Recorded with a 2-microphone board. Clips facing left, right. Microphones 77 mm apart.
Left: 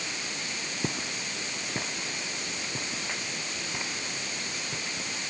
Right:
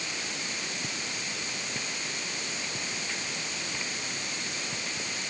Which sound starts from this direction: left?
Footsteps, at 0.8 s.